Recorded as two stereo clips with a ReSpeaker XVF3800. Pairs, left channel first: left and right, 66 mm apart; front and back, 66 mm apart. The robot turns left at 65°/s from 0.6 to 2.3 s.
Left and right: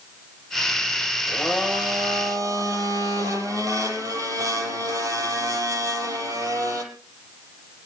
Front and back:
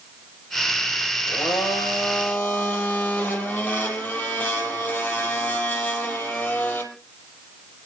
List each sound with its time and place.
1.3 s a blender: straight ahead, 4.5 m; by 6.8 s 70° right, 4.5 m